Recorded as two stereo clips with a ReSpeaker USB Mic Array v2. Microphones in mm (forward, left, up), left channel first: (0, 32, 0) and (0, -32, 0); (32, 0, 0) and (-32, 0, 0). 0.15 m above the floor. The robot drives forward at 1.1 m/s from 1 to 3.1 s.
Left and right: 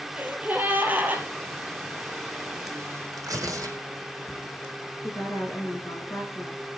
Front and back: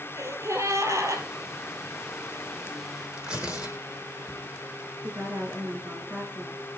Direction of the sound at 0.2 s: 150° right.